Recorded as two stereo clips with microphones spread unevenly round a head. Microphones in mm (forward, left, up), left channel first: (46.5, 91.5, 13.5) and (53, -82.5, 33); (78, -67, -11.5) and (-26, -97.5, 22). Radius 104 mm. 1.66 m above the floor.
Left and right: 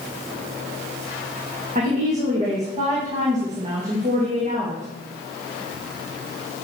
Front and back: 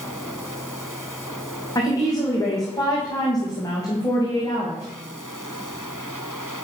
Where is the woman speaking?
40° right, 2.5 m.